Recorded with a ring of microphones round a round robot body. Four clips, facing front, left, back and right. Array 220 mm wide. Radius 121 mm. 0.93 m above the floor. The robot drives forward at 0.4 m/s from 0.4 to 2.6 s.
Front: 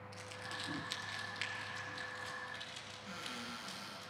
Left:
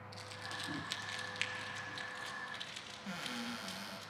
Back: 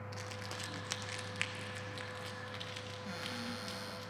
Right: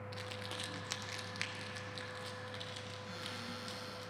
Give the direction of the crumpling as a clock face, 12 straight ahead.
4 o'clock.